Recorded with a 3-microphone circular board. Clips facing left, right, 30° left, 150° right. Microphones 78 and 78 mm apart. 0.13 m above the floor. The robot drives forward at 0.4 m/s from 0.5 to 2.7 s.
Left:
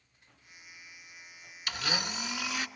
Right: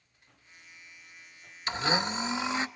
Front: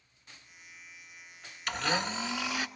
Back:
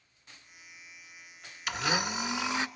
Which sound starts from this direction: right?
A blender, at 1.7 s.